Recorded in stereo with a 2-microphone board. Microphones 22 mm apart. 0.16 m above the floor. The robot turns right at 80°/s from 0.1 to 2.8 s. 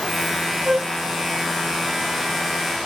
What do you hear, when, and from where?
0.7 s a flute: 65° right (ahead or behind), 1.2 m; by 0.9 s 40° right (ahead or behind), 1.2 m